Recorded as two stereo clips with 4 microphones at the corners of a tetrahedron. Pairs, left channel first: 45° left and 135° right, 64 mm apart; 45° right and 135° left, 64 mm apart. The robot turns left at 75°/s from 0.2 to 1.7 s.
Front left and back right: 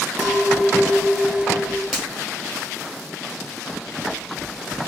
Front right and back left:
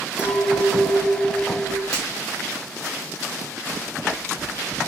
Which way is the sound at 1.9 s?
50° right.